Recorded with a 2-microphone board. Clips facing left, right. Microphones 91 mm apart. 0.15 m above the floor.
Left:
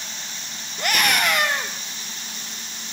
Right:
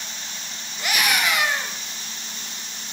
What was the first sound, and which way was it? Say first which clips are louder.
A scream: left 2 dB; 55° left (ahead or behind).